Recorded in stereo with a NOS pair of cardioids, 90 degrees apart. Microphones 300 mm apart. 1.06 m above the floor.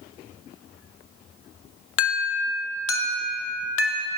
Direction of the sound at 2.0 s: 45° left.